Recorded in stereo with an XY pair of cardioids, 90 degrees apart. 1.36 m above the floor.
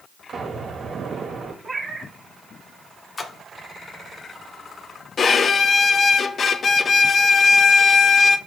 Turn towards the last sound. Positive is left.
turn(degrees=50)